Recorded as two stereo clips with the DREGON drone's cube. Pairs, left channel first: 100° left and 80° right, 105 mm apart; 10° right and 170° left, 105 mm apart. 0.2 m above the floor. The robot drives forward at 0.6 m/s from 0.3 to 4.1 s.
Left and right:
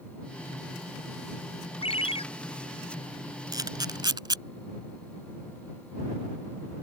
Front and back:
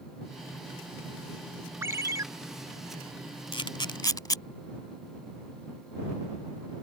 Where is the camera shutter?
35° right; by 4.4 s 50° right.